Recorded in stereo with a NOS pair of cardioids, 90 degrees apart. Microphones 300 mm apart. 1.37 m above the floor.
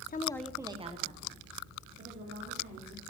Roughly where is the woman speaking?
Ahead left.